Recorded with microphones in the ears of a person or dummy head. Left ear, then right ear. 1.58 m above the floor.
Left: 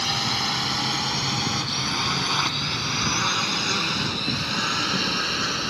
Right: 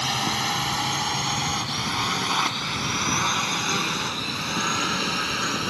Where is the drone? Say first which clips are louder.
Left 1 dB; 20° right (ahead or behind).